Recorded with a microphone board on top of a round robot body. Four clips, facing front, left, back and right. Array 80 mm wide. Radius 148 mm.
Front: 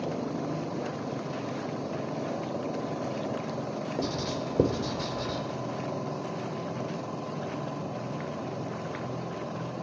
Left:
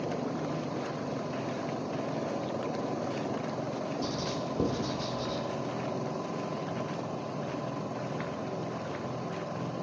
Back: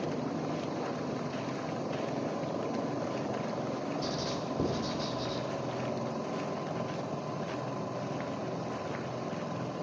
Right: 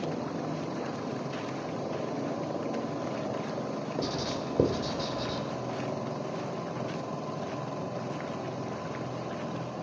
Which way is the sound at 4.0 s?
40° right.